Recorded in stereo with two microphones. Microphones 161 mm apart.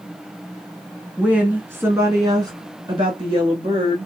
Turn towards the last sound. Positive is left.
turn(degrees=-35)  # may be behind; listen again after turning